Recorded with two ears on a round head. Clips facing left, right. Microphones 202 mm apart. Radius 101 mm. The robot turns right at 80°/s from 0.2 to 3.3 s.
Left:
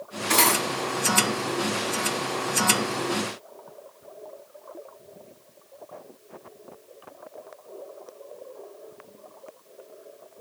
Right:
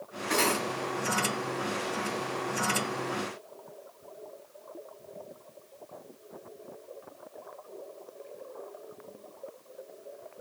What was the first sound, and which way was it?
Cutlery clinking, 55° left (ahead or behind).